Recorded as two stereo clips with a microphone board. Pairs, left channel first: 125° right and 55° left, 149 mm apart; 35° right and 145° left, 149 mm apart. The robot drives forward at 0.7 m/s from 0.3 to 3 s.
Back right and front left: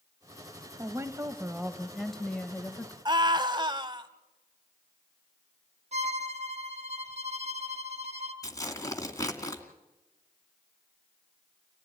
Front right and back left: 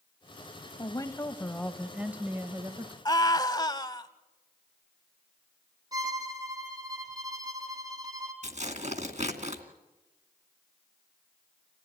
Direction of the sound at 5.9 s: 85° left.